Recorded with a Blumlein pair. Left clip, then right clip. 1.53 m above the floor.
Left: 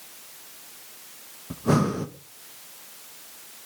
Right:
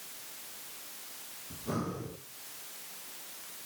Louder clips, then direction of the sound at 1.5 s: Left 13 dB; 55° left.